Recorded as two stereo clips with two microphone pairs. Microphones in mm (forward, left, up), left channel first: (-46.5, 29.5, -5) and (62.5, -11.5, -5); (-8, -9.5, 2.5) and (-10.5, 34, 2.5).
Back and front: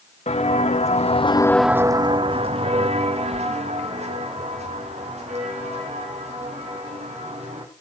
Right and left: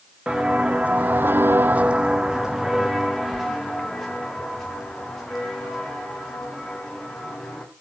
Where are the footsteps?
160° left, 1.5 m; by 7.6 s straight ahead, 7 m.